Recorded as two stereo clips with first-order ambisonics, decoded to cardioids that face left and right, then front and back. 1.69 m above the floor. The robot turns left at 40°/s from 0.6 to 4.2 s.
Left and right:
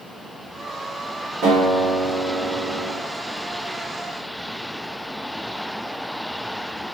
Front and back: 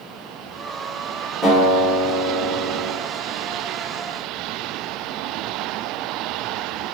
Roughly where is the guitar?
Right.